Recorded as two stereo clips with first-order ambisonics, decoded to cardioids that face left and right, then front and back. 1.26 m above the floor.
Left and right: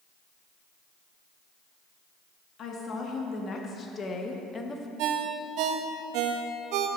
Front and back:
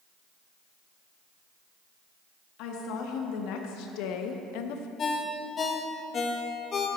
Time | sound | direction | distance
2.6 | a woman speaking | 30° left | 1.9 m
5.0 | a ringtone | 65° right | 0.9 m